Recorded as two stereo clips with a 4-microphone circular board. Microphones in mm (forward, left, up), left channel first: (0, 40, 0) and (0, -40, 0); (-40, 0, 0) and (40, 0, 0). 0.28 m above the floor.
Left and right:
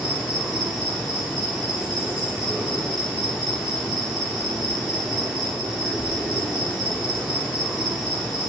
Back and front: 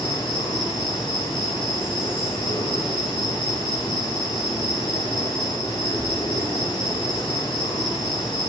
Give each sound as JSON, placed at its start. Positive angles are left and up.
{"t": 0.0, "sound": "an insect", "azimuth_deg": 175, "distance_m": 3.5}